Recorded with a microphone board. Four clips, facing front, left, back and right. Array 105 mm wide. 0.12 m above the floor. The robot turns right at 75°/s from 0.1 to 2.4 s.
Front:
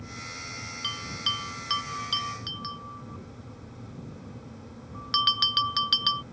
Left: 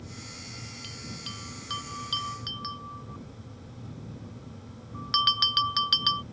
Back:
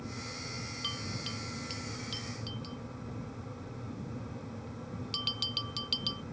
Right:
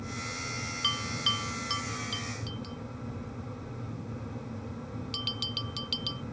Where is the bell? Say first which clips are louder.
Right 10 dB, front 8 dB; 70° right; by 6.2 s 45° left.